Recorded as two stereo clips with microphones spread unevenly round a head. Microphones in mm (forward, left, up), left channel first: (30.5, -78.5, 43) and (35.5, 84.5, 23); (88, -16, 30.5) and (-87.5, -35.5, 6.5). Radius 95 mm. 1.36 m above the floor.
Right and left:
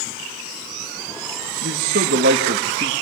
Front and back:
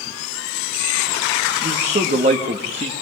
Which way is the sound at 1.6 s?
130° left.